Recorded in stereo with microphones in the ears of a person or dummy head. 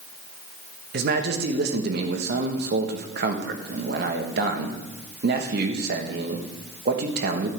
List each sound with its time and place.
0.9 s a man speaking: 55° right (ahead or behind), 1.3 m